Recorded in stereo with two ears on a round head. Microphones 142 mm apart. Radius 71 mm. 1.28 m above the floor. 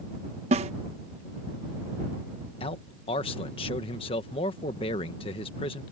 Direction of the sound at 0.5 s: 40° right (ahead or behind).